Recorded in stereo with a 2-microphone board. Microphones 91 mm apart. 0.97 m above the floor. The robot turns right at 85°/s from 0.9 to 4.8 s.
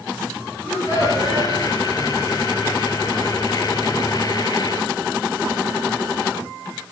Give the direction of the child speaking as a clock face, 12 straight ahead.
1 o'clock.